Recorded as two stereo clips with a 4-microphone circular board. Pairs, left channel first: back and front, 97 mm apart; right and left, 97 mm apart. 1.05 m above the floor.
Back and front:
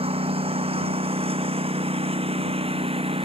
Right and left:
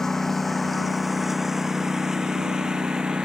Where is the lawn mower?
5° right; by 3.2 s 10° left.